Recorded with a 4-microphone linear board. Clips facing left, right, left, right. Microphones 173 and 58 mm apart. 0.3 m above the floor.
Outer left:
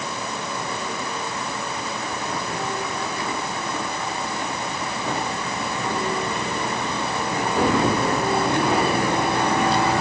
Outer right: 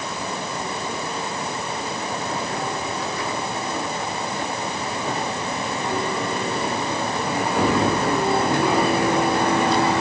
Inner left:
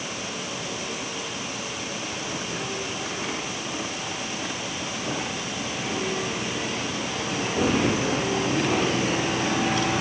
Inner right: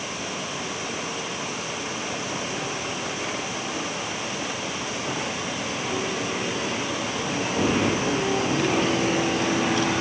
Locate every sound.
Only background noise.